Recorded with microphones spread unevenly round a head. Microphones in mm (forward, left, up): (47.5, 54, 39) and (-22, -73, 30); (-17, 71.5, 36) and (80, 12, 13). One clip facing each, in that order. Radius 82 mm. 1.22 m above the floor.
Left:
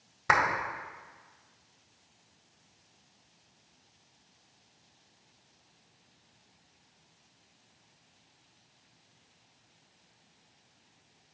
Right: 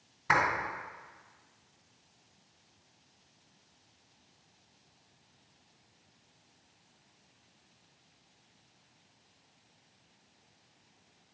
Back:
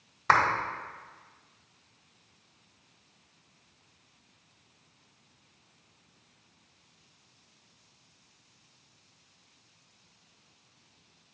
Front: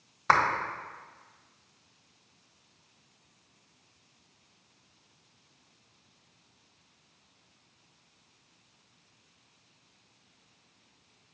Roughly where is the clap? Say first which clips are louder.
Left 2 dB, even; ahead left.